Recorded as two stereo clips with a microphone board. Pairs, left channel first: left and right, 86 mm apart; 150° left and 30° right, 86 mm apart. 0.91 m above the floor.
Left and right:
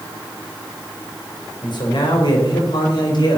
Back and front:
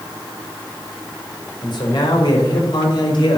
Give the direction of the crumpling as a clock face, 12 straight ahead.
I don't hear crumpling.